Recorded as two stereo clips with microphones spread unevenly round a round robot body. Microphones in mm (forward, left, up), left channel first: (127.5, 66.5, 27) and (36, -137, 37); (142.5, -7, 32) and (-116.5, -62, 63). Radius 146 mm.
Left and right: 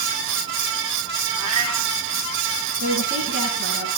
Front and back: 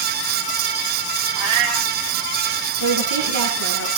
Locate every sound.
1.4 s a cat meowing: 155° right, 2.5 m
2.8 s a woman speaking: 165° right, 8 m